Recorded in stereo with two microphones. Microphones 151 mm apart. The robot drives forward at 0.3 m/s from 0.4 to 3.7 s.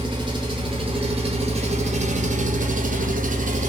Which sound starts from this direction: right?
An engine running, at 0.0 s.